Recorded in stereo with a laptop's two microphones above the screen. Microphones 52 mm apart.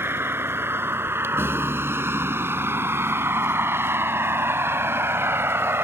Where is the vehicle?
50° right (ahead or behind); by 5.8 s 55° right (ahead or behind).